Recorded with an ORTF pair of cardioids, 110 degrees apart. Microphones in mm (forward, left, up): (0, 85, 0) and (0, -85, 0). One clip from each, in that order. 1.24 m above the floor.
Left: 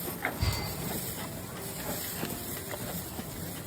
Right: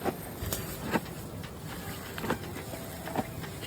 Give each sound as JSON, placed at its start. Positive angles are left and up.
{"t": 0.5, "sound": "a crack", "azimuth_deg": -65, "distance_m": 0.9}